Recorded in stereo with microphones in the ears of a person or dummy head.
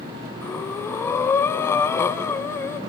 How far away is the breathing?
About 0.7 m.